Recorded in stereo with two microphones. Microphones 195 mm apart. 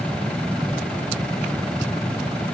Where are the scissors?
I don't hear scissors.